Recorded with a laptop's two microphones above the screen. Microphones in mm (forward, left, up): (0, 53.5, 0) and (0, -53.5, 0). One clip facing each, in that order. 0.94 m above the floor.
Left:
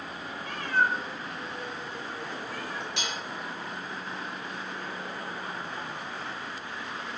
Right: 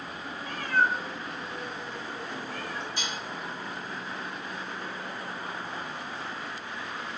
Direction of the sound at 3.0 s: 75° left (ahead or behind).